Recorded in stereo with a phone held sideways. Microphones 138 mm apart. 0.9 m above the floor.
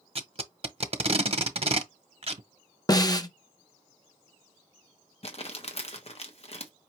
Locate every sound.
0.1 s tape being pulled: 45° right (ahead or behind), 0.7 m
2.9 s a snare drum: 25° left (ahead or behind), 0.6 m
5.2 s crumpling: 45° left (ahead or behind), 1.0 m